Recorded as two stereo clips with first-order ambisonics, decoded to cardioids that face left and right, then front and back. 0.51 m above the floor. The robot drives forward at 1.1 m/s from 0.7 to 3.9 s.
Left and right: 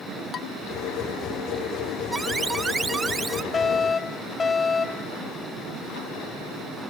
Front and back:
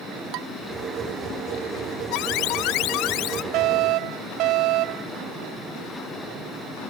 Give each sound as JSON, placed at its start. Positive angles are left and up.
{"t": 0.3, "sound": "dishes clattering", "azimuth_deg": 150}
{"t": 2.1, "sound": "an alarm", "azimuth_deg": -15}
{"t": 3.5, "sound": "a fire alarm", "azimuth_deg": 160}